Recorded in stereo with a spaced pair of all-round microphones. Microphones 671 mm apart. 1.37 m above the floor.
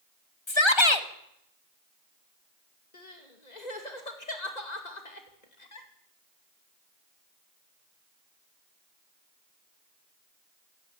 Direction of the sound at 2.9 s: 75° left (ahead or behind).